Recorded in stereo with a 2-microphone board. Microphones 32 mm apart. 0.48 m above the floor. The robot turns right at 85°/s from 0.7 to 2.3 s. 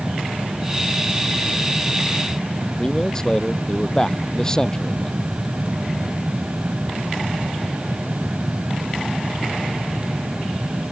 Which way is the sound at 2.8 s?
20° left (ahead or behind).